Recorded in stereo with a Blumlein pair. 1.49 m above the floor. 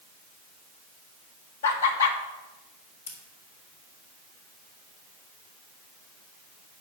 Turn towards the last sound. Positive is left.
turn(degrees=65)